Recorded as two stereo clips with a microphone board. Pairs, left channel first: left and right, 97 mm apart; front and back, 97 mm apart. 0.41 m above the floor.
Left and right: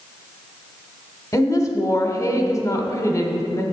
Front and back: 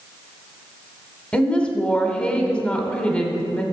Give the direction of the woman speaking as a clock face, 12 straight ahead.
10 o'clock.